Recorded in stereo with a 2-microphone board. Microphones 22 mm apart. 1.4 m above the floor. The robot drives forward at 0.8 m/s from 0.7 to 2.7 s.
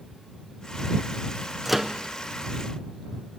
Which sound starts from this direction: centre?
A microwave, at 1.6 s.